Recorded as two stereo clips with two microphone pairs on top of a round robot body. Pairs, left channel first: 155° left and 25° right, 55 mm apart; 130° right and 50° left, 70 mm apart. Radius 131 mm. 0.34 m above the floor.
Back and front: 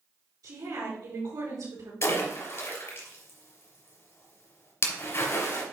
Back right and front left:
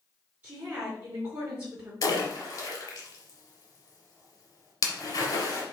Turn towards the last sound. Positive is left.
turn(degrees=-170)